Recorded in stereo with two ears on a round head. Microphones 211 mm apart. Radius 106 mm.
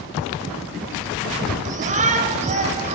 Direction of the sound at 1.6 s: 30° right (ahead or behind).